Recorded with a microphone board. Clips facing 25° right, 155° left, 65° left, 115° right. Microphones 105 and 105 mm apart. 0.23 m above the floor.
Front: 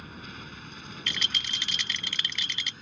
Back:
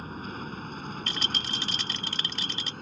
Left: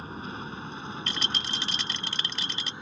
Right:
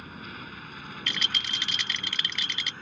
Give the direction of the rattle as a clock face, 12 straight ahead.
8 o'clock.